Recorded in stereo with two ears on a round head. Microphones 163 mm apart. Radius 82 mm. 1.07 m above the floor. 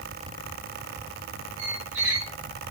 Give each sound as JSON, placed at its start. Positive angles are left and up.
{"t": 1.6, "sound": "a squeak", "side_deg": -70, "distance_m": 1.7}